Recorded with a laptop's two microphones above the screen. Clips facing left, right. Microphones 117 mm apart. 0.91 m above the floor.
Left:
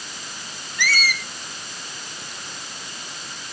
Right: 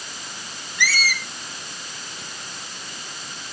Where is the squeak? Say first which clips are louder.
Even; 50° left (ahead or behind), 1.5 m.